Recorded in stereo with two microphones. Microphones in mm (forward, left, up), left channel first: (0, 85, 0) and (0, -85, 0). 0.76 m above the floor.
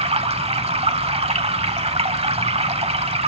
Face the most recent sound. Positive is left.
turn(degrees=-35)  # may be behind; listen again after turning